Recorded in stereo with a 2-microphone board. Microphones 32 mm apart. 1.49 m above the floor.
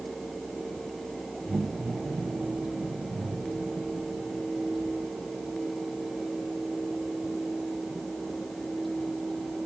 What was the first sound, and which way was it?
Only background noise.